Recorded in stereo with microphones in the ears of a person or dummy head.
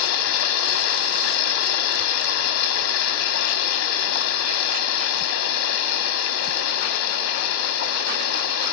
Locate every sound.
0.0 s running water: 65° left (ahead or behind), 1.6 m